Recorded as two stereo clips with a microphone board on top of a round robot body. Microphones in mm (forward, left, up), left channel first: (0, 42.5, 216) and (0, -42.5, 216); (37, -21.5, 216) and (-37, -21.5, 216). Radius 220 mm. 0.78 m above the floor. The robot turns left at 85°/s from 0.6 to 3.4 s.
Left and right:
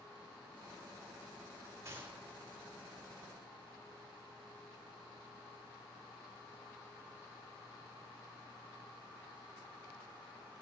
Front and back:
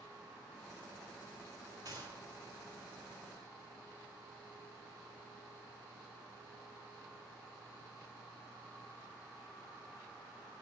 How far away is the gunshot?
About 6 m.